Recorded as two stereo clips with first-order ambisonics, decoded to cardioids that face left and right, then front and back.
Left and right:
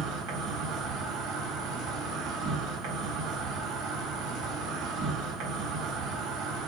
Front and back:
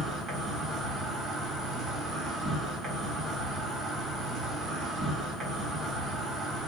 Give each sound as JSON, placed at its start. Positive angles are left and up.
{"t": 0.0, "sound": "an insect", "azimuth_deg": -105, "distance_m": 1.3}